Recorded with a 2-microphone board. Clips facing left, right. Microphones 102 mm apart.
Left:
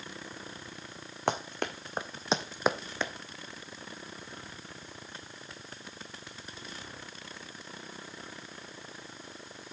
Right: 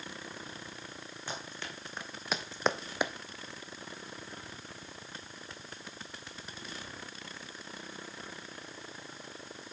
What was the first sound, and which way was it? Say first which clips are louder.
Running footsteps: left 12 dB; 65° left (ahead or behind).